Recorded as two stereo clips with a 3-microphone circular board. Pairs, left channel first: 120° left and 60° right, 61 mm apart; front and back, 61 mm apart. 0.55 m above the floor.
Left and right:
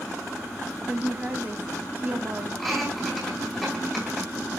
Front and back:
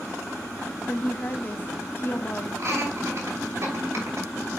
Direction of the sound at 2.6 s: 150° right.